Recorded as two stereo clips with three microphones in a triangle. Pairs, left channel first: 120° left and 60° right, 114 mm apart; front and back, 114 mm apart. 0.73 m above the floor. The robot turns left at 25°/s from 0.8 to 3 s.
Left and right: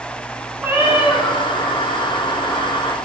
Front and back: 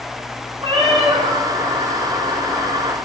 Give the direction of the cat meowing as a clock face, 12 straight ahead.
4 o'clock.